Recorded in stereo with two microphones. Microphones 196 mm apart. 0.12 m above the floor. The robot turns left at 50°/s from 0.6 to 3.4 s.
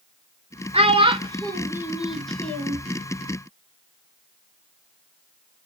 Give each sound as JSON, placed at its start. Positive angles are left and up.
{"t": 0.7, "sound": "a child speaking", "side_deg": -30, "distance_m": 0.8}